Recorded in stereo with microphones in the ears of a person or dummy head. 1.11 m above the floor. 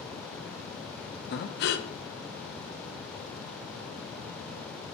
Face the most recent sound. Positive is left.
turn(degrees=55)  # may be behind; listen again after turning